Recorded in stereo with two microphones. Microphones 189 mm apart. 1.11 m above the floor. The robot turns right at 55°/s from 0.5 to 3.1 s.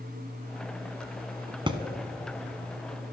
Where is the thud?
25° right (ahead or behind), 1.1 m.